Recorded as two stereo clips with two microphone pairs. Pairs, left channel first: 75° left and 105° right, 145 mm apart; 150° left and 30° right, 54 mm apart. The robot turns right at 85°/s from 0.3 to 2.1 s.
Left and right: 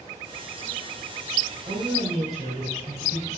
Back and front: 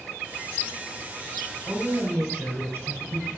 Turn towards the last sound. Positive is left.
turn(degrees=-70)